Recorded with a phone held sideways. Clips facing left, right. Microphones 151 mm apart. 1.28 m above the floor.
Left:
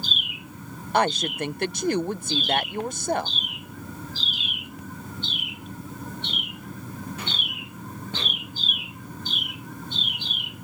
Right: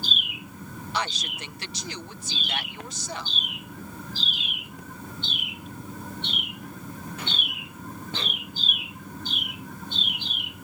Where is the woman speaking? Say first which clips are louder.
Left 10 dB; 55° left (ahead or behind).